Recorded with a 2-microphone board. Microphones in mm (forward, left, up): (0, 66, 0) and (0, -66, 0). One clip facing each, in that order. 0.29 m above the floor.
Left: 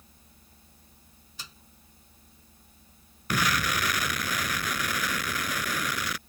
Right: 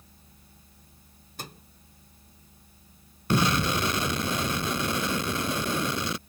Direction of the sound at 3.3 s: 30° right (ahead or behind).